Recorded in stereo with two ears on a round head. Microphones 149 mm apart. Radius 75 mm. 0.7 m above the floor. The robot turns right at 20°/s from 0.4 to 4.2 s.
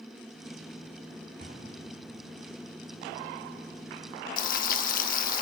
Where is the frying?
55° left (ahead or behind), 0.7 m.